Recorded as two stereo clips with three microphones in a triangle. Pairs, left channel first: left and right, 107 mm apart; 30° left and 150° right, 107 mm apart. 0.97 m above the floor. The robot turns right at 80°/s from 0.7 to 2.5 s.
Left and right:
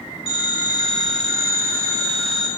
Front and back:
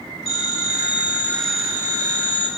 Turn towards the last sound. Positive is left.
turn(degrees=-160)